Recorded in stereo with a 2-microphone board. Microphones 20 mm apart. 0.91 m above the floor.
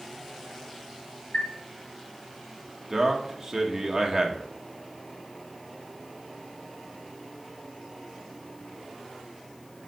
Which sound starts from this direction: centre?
A man speaking, at 2.9 s.